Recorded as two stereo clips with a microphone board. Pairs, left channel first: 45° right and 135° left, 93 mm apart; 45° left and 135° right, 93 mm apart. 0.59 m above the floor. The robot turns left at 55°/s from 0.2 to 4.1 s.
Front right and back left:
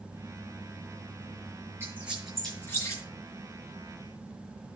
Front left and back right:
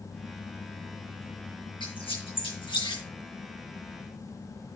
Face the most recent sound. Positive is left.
turn(degrees=-55)